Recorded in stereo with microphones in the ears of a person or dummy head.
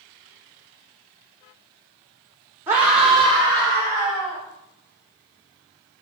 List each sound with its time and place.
2.7 s a scream: 15° right (ahead or behind), 1.1 m; by 4.4 s 10° left (ahead or behind), 3 m